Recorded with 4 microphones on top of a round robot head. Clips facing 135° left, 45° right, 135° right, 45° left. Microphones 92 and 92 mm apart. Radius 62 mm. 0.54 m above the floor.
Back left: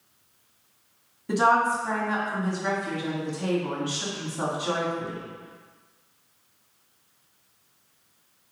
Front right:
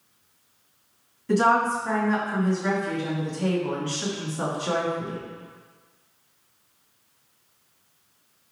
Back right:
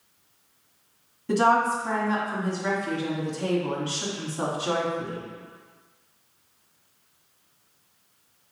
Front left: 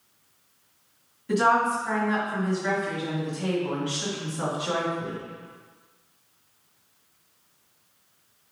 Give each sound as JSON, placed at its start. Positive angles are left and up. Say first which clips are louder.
{"t": 1.3, "sound": "a woman speaking", "louder": "front right 1 dB, back right 1 dB", "azimuth_deg": -160, "distance_m": 1.5}